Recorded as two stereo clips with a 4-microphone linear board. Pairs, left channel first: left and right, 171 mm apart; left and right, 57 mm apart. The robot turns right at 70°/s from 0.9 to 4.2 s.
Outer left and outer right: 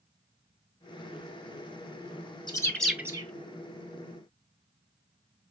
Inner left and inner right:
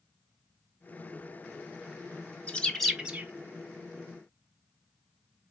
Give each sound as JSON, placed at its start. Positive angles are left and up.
{"t": 2.5, "sound": "a bird", "side_deg": 25, "distance_m": 0.6}